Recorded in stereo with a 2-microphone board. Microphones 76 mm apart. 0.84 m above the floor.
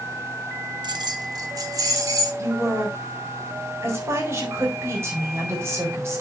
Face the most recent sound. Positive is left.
turn(degrees=-35)  # may be behind; listen again after turning